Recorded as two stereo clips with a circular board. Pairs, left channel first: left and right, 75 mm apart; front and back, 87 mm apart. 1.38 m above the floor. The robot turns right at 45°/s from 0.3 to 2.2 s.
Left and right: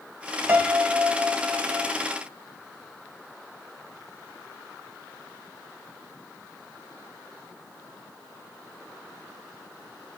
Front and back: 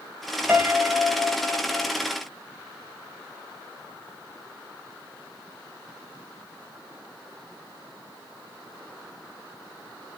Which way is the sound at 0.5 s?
130° right.